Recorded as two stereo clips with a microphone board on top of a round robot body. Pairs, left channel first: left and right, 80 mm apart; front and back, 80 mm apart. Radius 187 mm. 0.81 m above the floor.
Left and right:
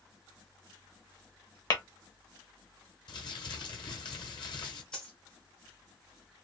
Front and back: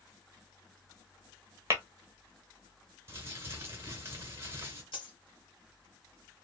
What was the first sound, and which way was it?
Tapping, 125° left.